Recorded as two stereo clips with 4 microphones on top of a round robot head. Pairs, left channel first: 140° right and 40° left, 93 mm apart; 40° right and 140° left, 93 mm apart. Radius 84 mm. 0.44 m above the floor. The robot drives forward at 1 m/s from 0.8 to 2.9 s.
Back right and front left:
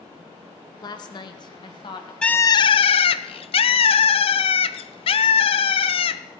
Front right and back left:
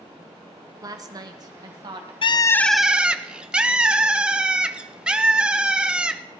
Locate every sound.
0.8 s a woman speaking: 175° right, 1.4 m; by 2.1 s straight behind, 2.5 m
2.2 s a bird: 60° right, 0.5 m; by 6.2 s 140° right, 0.6 m